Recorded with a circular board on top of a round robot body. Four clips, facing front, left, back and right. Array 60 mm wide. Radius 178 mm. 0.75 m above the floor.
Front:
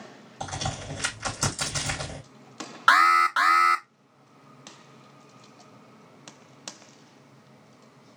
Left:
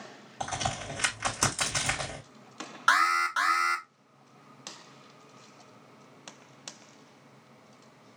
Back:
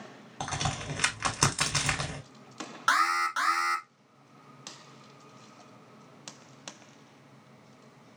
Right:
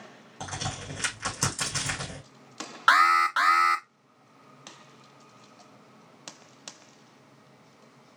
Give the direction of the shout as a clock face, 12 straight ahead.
I don't hear a shout.